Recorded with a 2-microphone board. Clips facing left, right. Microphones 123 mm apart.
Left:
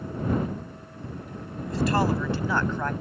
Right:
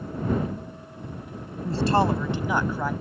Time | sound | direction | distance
1.6 | a man speaking | 35° right (ahead or behind) | ?